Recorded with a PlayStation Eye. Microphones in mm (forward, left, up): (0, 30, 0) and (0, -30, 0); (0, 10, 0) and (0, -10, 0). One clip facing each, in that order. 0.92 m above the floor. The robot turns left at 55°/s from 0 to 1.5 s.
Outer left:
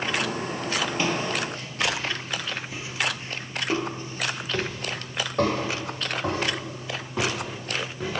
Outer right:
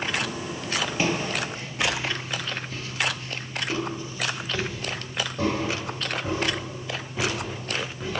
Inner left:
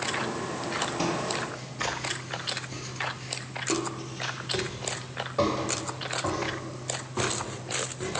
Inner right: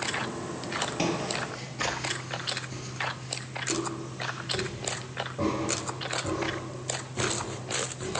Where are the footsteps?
15° right (ahead or behind), 1.3 m; by 8.2 s 75° left (ahead or behind), 3 m.